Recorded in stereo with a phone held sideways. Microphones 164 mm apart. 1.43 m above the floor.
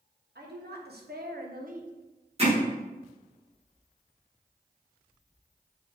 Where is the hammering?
40° right (ahead or behind), 1.7 m.